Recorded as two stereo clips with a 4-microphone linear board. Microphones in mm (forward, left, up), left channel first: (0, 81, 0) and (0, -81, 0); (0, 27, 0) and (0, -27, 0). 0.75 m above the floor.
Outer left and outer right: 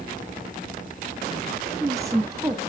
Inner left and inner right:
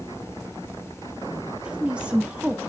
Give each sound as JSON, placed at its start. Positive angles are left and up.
{"t": 1.6, "sound": "a woman speaking", "side_deg": -20, "distance_m": 0.9}